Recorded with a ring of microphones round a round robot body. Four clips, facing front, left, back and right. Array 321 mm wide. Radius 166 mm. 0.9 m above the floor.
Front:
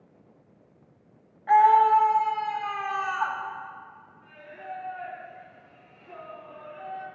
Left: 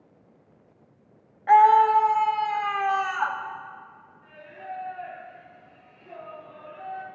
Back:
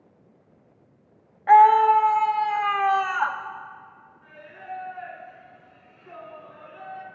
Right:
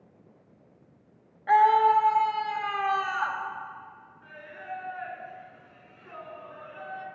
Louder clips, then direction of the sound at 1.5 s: Left 4 dB, back 3 dB; 165° left.